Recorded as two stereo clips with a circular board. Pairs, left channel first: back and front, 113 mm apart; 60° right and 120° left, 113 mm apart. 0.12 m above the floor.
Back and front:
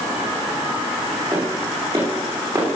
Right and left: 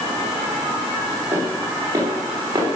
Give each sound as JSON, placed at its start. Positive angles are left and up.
{"t": 1.3, "sound": "footsteps", "azimuth_deg": 55, "distance_m": 10.0}